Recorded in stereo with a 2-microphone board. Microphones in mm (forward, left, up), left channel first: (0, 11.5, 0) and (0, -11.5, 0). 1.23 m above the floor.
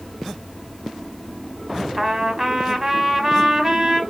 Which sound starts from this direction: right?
A trumpet, at 2.0 s.